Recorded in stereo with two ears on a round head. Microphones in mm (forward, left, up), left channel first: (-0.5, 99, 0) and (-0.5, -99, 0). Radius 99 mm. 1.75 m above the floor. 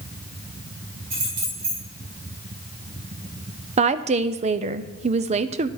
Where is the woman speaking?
30° right (ahead or behind), 0.5 m.